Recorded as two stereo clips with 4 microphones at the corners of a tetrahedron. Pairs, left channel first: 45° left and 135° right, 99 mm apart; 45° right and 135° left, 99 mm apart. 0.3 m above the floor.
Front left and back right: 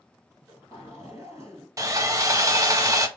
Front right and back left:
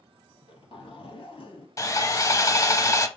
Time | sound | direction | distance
0.3 | a zipper | 70° right | 1.6 m
1.8 | sawing | 90° right | 0.6 m